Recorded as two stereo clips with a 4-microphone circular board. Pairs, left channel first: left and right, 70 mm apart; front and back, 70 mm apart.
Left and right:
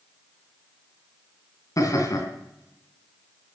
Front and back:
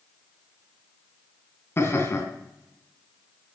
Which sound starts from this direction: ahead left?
Laughter, at 1.8 s.